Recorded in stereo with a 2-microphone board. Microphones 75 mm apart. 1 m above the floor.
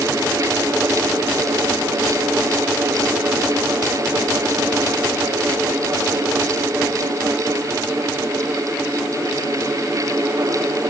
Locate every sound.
Only background noise.